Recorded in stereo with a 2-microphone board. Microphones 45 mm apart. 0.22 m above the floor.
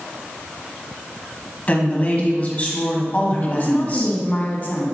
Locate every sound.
1.7 s a woman speaking: 35° left (ahead or behind), 1.4 m
3.4 s a woman speaking: 40° left (ahead or behind), 1.4 m